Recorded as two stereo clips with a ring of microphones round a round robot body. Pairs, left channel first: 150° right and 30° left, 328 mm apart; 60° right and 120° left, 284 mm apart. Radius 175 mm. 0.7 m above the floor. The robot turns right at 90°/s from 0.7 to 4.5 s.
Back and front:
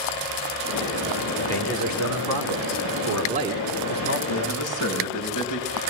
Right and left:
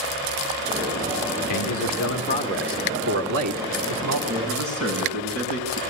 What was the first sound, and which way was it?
A man speaking, 70° right.